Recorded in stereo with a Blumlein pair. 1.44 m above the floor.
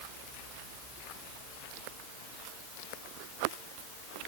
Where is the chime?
No chime in this recording.